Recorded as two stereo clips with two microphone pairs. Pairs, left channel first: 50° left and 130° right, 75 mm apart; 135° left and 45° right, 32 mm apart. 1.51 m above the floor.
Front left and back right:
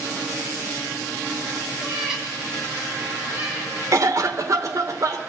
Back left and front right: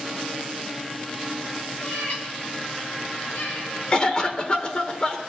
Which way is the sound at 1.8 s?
150° left.